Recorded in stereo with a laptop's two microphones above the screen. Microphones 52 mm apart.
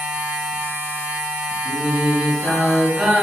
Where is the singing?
20° right (ahead or behind), 1.9 m.